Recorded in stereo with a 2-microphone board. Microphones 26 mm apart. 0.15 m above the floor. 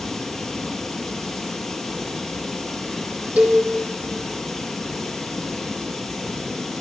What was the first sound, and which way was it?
Running water, 5° left (ahead or behind).